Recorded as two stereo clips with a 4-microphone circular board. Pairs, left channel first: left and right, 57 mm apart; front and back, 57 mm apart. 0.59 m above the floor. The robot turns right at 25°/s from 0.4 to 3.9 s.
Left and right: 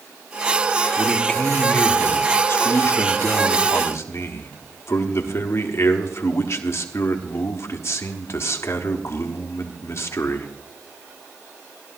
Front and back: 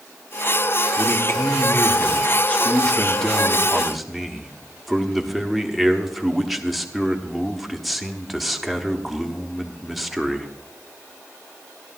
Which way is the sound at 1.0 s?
20° left.